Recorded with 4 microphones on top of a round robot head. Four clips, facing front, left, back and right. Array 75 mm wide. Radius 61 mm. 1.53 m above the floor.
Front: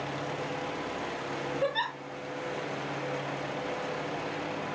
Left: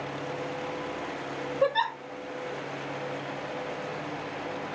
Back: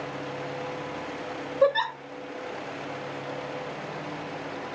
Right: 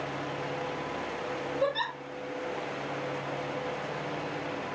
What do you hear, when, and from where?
1.6 s a giggle: 160° left, 2.5 m